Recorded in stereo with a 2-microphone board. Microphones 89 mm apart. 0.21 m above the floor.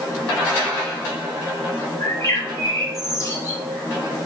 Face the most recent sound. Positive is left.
turn(degrees=40)  # may be behind; listen again after turning